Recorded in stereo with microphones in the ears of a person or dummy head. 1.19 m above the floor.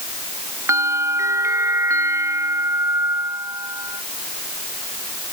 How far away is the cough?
I don't hear a cough.